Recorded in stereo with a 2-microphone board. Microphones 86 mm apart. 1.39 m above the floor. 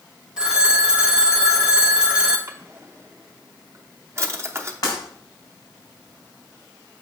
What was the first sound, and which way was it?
A phone ringing, 10° right (ahead or behind).